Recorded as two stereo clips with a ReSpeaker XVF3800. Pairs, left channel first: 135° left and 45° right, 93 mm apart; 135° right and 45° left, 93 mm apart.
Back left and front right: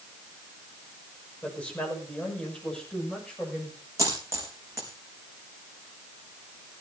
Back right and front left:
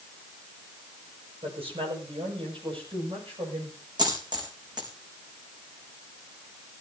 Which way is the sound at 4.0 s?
10° left.